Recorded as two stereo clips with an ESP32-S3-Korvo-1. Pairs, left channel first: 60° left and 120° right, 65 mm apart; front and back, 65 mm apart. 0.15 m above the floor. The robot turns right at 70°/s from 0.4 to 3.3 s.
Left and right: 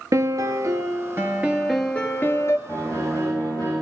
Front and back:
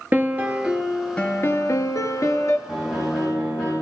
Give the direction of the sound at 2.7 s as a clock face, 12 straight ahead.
12 o'clock.